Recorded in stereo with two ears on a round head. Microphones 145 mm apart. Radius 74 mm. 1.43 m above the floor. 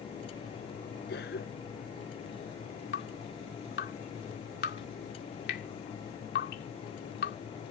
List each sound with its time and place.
1.1 s a cough: 60° left (ahead or behind)
2.9 s dripping: 70° left (ahead or behind)